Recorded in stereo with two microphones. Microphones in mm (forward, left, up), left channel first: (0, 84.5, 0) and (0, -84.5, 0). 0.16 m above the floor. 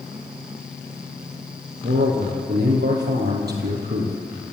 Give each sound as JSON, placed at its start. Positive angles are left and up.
{"t": 1.8, "sound": "a man speaking", "side_deg": -75, "distance_m": 5.0}